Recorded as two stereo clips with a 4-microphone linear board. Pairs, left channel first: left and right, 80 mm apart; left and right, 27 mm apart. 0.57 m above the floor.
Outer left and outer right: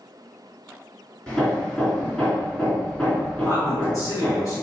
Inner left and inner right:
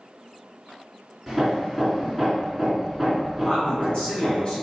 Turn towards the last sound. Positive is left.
turn(degrees=45)  # may be behind; listen again after turning